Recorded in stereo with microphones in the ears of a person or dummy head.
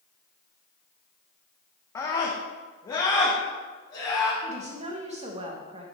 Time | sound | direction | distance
1.9 | a scream | 15° left (ahead or behind) | 1.1 m
4.4 | a woman speaking | 40° right (ahead or behind) | 1.8 m